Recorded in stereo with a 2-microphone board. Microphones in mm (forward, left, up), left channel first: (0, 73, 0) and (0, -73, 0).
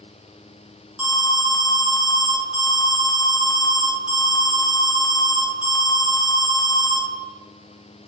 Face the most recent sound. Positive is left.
turn(degrees=-5)  # may be behind; listen again after turning